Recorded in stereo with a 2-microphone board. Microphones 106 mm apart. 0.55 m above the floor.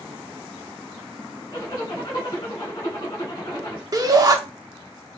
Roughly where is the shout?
Right.